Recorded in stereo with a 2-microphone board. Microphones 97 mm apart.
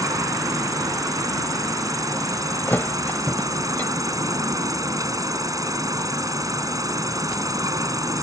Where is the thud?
20° left (ahead or behind).